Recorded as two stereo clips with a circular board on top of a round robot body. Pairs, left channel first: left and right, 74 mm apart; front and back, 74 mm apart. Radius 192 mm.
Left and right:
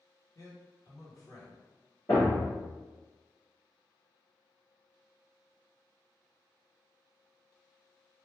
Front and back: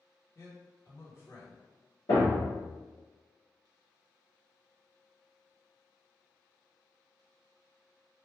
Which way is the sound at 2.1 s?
25° left.